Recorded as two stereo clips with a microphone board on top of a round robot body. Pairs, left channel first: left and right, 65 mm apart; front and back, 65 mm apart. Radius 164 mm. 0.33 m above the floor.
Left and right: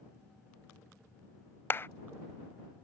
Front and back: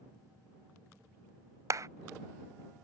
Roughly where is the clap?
Behind left.